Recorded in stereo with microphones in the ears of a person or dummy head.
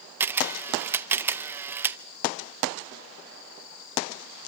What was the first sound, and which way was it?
A camera shutter, 10° right (ahead or behind).